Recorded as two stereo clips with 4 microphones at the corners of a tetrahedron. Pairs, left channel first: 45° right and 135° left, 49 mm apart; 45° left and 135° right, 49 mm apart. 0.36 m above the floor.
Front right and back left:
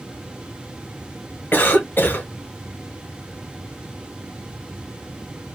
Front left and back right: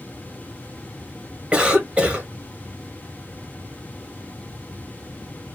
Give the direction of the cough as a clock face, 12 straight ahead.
2 o'clock.